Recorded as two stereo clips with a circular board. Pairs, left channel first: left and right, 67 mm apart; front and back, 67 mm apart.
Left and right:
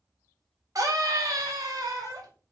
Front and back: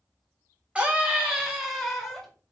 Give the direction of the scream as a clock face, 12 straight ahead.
4 o'clock.